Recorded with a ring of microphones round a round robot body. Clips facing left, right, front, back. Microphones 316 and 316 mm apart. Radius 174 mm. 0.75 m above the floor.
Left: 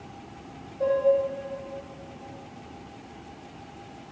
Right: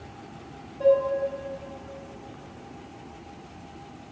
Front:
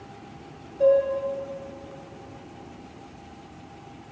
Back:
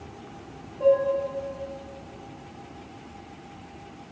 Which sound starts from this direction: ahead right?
Dishes clattering, at 0.8 s.